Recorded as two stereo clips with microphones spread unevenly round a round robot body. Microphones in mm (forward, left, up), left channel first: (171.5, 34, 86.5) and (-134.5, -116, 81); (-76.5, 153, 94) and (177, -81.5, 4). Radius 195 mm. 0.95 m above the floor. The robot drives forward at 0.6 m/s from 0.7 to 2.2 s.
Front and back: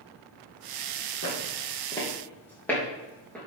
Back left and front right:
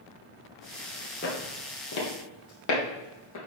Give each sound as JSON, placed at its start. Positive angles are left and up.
{"t": 1.2, "sound": "footsteps", "azimuth_deg": 85, "distance_m": 2.0}